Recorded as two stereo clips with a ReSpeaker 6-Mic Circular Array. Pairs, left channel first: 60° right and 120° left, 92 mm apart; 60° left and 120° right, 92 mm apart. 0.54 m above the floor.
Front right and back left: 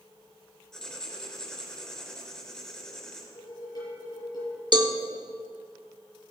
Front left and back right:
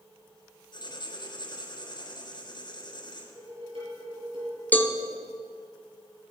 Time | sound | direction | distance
0.7 | writing | 25° left | 3.5 m
3.4 | dishes clattering | 105° right | 7 m
4.7 | a cowbell | 125° left | 1.2 m